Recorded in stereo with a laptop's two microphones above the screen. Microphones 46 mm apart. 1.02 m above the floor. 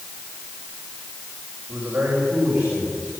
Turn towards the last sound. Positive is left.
turn(degrees=-20)  # may be behind; listen again after turning